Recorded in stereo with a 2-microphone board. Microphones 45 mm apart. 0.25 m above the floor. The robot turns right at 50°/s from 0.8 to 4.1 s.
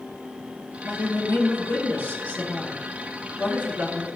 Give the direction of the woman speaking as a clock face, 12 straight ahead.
10 o'clock.